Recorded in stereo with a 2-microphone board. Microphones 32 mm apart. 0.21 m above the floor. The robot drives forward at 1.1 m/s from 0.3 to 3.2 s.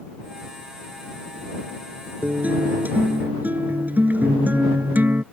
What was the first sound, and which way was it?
A guitar, 55° right (ahead or behind).